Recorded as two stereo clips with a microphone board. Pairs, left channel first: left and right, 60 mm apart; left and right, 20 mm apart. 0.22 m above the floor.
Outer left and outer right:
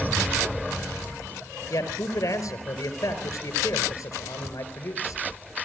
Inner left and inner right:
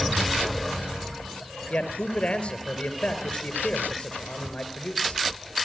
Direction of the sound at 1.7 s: 70° left (ahead or behind).